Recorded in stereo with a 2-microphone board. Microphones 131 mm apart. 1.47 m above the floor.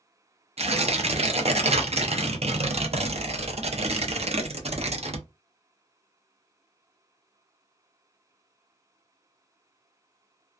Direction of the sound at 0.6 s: 55° right (ahead or behind).